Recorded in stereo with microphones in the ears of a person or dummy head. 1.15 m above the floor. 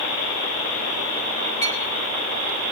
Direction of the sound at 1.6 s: 20° left (ahead or behind).